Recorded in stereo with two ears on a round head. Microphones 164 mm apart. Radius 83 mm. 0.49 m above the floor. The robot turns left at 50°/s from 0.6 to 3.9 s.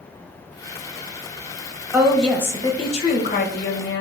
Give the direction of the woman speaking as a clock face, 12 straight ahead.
6 o'clock.